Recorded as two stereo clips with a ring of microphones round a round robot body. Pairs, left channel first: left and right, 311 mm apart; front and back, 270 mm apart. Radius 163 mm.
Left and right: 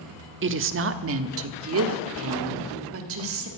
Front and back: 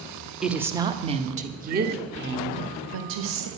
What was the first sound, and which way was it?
A woman speaking, 95° right.